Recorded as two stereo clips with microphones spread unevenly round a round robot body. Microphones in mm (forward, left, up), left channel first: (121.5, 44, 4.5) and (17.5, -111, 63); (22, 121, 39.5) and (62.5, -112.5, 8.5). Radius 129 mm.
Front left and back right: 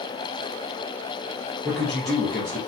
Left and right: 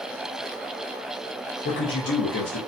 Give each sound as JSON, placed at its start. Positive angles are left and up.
{"t": 1.6, "sound": "a man speaking", "azimuth_deg": 115, "distance_m": 0.7}